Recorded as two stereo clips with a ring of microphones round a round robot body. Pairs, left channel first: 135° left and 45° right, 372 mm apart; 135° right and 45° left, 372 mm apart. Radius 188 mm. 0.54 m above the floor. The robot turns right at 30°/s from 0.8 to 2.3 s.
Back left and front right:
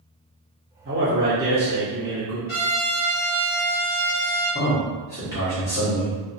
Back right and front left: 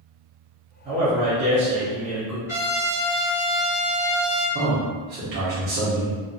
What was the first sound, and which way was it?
A man speaking, 5° right.